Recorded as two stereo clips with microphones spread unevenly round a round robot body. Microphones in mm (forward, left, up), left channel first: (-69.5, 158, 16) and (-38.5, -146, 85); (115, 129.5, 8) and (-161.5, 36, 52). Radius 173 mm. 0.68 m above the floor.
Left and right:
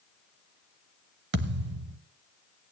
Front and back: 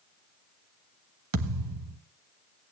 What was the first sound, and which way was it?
A thud, 130° right.